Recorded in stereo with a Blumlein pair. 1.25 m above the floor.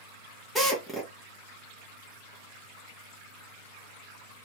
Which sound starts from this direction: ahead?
A drill, at 0.6 s.